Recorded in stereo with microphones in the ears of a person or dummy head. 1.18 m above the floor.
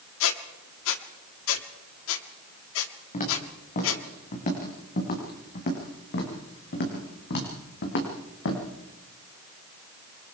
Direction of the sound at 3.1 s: 40° left (ahead or behind).